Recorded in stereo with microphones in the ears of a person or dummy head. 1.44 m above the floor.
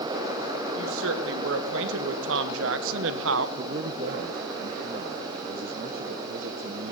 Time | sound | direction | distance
0.8 | a woman speaking | 70° right (ahead or behind) | 2.5 m
3.6 | a man speaking | 40° right (ahead or behind) | 1.1 m